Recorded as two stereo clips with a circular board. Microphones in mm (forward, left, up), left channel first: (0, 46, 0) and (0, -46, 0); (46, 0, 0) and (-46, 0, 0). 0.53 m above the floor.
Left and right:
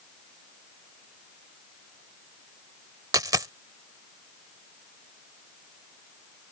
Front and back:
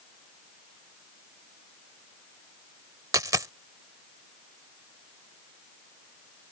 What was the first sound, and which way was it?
A dropped coin, 135° right.